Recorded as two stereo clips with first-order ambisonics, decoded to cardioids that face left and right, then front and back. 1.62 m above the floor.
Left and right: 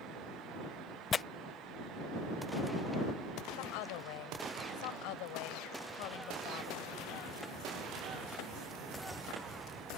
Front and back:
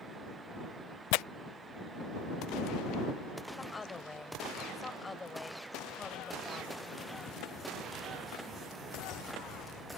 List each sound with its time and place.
1.1 s tearing paper: 20° left
3.6 s a woman speaking: 75° left